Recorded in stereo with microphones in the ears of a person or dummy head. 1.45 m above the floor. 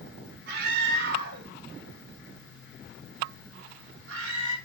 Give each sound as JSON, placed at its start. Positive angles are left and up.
{"t": 0.5, "sound": "a scream", "side_deg": -60, "distance_m": 3.5}